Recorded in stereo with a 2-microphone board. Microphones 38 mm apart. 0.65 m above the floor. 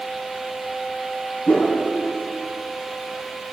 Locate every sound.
1.5 s a whoosh: 80° left, 4 m